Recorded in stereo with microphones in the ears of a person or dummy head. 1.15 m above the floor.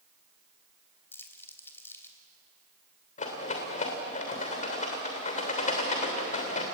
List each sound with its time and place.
1.1 s crumpling: 10° left (ahead or behind), 3 m
3.2 s a rattle: 45° left (ahead or behind), 3 m